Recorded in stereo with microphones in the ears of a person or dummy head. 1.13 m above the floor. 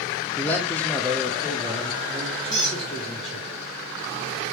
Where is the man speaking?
5° left (ahead or behind), 0.6 m.